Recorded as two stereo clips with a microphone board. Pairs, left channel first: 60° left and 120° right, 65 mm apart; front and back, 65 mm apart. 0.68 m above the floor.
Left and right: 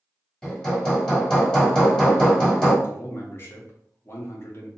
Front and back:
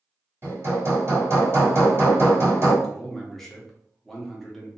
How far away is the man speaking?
About 0.8 m.